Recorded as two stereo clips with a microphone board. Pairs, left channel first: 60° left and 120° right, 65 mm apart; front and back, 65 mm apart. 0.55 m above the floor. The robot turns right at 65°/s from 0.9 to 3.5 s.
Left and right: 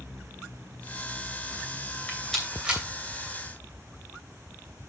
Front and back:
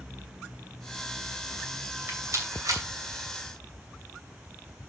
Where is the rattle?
125° left, 2.5 m; by 2.8 s 175° left, 2.5 m.